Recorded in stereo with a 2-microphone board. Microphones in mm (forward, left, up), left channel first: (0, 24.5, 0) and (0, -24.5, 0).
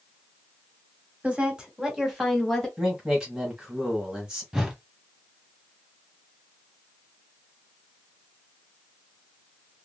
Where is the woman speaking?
25° right (ahead or behind), 1.2 m; by 2.7 s 5° left (ahead or behind), 1.5 m.